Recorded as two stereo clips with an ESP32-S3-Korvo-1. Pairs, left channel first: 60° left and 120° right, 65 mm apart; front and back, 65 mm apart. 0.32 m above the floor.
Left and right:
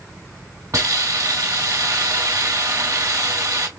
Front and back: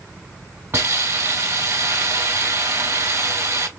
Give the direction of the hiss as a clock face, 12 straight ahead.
5 o'clock.